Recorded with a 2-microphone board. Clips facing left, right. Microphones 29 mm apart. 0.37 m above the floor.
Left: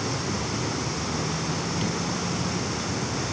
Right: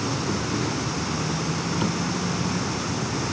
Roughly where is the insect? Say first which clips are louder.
Right 2 dB; right.